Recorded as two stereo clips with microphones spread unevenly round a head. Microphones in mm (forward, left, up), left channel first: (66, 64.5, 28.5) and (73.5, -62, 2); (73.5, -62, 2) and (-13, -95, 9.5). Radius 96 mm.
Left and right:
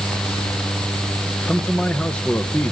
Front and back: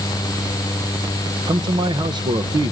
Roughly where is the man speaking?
Behind.